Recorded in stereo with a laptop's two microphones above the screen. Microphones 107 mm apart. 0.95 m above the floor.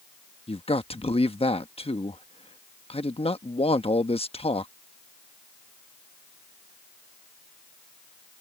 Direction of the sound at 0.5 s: 65° left (ahead or behind).